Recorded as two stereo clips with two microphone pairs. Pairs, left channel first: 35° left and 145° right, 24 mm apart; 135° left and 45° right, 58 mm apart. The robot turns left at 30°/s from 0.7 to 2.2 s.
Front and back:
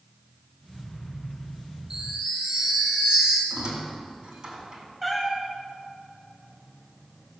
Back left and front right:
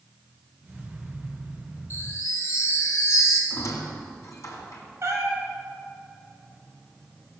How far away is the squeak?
About 2.5 m.